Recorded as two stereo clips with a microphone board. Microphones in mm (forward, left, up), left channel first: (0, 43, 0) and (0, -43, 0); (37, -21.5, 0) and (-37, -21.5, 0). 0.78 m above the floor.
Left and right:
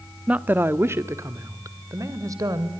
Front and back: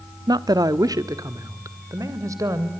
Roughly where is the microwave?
No microwave in this recording.